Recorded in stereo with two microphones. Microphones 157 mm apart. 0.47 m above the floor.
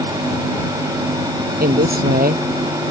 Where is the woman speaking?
75° right (ahead or behind).